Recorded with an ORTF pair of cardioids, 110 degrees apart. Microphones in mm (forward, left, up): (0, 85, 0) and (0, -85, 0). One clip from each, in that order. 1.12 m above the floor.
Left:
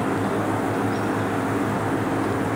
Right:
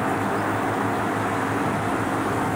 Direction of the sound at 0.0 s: 30° left.